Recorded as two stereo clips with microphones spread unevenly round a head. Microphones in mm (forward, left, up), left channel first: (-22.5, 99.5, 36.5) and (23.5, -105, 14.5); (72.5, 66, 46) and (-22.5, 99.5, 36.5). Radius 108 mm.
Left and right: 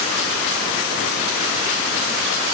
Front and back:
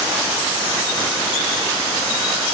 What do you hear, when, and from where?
Only background noise.